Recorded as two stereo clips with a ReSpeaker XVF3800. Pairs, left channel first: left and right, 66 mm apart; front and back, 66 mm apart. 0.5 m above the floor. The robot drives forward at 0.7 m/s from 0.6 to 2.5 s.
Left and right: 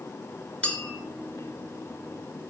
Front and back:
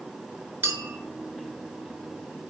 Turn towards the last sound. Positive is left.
turn(degrees=175)